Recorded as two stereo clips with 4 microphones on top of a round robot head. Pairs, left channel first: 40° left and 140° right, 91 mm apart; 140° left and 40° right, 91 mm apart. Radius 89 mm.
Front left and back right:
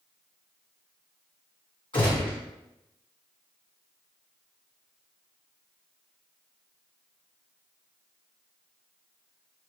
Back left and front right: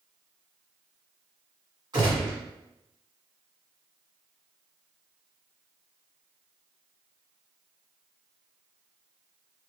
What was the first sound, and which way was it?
A gunshot, 10° left.